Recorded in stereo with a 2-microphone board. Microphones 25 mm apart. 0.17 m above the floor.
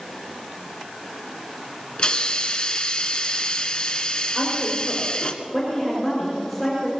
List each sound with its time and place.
2.0 s a hiss: 45° left (ahead or behind), 1.4 m
4.3 s a woman speaking: 15° left (ahead or behind), 5.5 m